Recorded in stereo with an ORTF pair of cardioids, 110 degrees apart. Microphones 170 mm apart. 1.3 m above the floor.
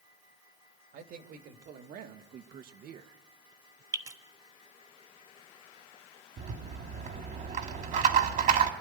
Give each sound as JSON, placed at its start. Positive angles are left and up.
{"t": 0.9, "sound": "a man speaking", "azimuth_deg": -65, "distance_m": 3.0}
{"t": 3.9, "sound": "dripping", "azimuth_deg": -20, "distance_m": 1.7}
{"t": 6.4, "sound": "a rattle", "azimuth_deg": -50, "distance_m": 2.5}